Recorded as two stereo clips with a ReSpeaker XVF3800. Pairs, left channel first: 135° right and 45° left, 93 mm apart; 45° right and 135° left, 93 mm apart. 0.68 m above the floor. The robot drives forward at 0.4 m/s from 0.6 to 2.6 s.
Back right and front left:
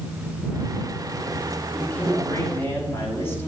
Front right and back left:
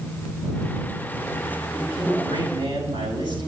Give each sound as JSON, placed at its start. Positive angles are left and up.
{"t": 1.7, "sound": "a man speaking", "azimuth_deg": 160, "distance_m": 5.0}